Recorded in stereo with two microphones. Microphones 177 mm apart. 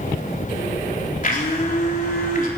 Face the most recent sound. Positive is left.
turn(degrees=50)  # may be behind; listen again after turning